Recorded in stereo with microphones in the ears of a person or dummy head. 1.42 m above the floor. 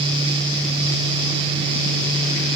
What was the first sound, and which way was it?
Only background noise.